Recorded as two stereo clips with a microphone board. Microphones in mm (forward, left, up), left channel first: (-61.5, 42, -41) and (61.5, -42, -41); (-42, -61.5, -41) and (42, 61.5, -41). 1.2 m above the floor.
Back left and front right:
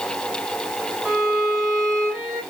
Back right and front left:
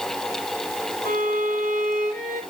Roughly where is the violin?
Ahead left.